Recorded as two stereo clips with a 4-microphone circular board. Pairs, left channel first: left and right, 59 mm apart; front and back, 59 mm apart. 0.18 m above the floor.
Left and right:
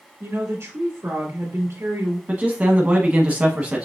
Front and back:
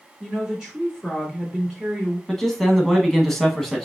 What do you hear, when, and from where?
0.2 s a woman speaking: 95° right, 2.5 m
2.3 s a man speaking: 75° right, 1.1 m